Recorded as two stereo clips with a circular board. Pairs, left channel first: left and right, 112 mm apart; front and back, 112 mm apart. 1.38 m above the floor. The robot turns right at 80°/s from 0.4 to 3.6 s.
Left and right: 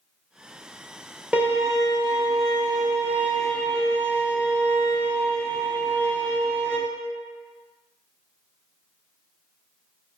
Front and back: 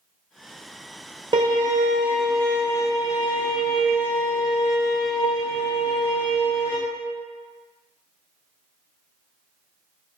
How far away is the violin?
About 0.5 m.